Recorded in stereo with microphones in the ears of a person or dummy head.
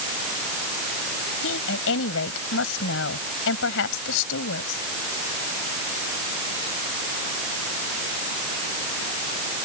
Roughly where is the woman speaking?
Left.